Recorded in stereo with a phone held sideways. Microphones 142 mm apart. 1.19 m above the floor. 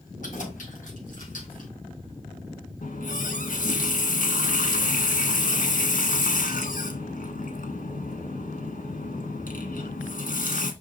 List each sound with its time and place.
0.2 s keys jangling: 65° left (ahead or behind), 4 m; by 1.7 s 75° left (ahead or behind), 3.5 m
2.8 s a running tap: 75° left (ahead or behind), 1.3 m